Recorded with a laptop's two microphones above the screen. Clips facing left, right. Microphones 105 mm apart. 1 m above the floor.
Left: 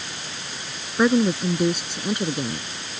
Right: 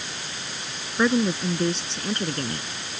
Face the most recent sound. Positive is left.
turn(degrees=10)  # may be behind; listen again after turning